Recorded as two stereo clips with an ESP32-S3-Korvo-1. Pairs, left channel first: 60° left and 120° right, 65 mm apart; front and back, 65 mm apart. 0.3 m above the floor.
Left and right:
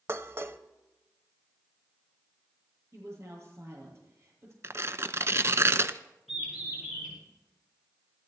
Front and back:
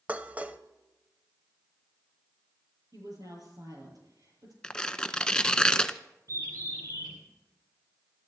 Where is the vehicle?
I don't hear a vehicle.